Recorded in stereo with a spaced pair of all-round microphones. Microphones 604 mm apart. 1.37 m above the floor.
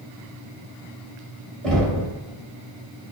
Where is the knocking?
Centre (ahead or behind), 1.6 m.